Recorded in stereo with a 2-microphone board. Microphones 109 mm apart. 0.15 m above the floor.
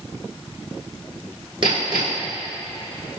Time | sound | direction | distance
1.6 | hammering | 50° right (ahead or behind) | 1.9 m